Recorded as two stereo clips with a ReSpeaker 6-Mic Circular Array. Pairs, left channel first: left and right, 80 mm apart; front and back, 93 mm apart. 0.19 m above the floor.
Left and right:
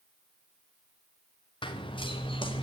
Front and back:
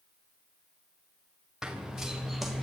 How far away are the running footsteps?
About 4.5 m.